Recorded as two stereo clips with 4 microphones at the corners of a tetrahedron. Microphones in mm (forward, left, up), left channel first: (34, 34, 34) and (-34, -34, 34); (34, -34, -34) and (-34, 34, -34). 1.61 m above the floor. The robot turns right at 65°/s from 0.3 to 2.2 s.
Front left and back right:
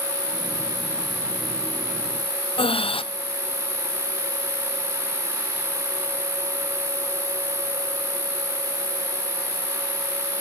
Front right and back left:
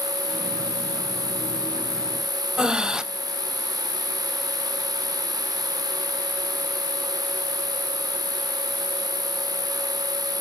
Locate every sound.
0.0 s an insect: 95° right, 3.5 m; by 10.4 s 25° left, 3.5 m
2.6 s breathing: 55° left, 0.7 m